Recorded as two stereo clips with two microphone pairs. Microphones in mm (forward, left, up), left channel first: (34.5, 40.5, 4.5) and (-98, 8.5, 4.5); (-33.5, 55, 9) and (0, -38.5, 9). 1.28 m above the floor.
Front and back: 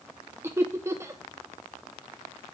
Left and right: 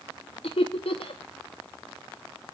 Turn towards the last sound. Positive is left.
turn(degrees=125)